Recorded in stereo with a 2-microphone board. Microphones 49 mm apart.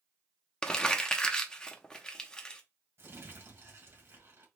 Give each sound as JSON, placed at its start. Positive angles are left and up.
{"t": 0.6, "sound": "crumpling", "side_deg": 15, "distance_m": 0.8}
{"t": 3.0, "sound": "crumpling", "side_deg": -60, "distance_m": 2.0}